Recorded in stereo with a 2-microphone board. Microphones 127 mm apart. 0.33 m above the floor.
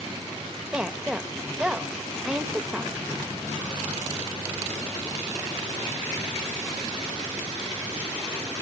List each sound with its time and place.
0.7 s a woman speaking: 10° right (ahead or behind), 0.8 m